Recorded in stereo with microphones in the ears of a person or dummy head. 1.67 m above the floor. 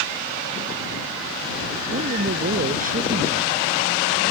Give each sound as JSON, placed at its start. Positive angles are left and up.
{"t": 1.9, "sound": "a man speaking", "side_deg": -40}